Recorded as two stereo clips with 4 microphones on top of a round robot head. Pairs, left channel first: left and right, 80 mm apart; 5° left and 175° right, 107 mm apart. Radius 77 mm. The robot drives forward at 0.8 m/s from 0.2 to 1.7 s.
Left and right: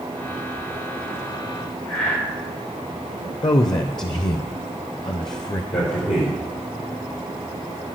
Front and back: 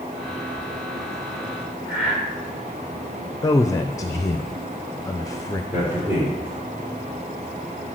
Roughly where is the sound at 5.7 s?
Left.